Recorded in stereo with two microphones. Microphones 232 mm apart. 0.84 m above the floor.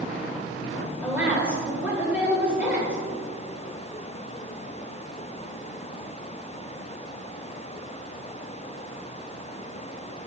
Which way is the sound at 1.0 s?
5° right (ahead or behind).